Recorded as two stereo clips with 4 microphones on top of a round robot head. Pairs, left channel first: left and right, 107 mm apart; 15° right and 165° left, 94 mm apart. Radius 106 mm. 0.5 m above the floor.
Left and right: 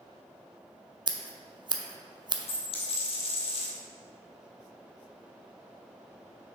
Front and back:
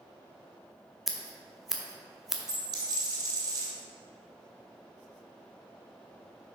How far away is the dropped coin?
About 1.8 m.